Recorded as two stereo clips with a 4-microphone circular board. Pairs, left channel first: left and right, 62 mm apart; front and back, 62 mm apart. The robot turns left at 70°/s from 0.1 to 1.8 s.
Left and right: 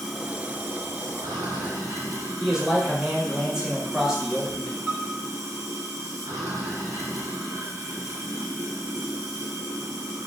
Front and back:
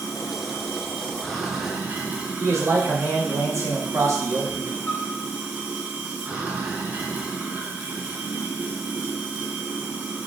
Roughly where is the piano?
Ahead right.